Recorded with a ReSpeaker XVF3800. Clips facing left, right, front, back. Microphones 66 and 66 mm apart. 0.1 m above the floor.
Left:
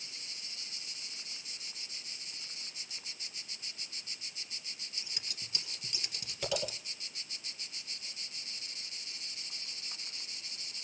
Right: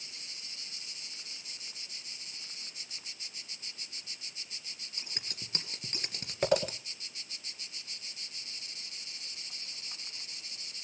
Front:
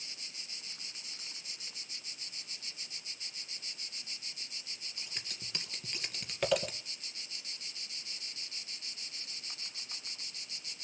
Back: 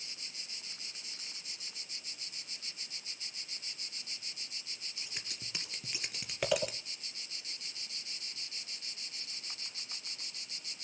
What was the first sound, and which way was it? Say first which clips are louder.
Scissors: right 4 dB, even; 95° right.